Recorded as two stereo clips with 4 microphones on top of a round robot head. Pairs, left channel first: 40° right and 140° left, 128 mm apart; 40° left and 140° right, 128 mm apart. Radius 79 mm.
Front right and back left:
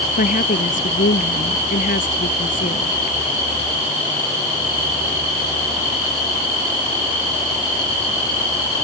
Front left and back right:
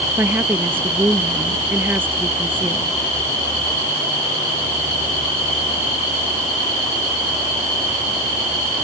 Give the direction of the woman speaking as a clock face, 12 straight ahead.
2 o'clock.